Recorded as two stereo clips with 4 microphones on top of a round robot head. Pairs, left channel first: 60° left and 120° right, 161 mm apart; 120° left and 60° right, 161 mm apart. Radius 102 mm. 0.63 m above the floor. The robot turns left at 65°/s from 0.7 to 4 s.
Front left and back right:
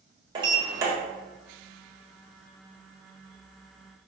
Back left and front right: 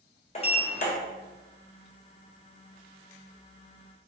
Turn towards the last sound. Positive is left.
turn(degrees=-40)